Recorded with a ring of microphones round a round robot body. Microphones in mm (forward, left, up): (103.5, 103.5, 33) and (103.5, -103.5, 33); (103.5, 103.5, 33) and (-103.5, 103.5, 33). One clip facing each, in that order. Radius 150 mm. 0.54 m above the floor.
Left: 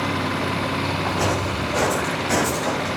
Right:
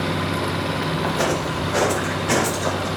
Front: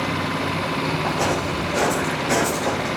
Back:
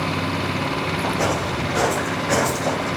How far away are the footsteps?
About 4.5 m.